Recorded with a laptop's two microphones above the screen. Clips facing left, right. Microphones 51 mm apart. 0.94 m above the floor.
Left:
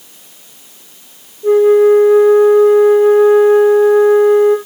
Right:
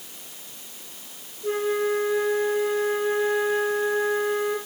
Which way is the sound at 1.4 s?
50° left (ahead or behind).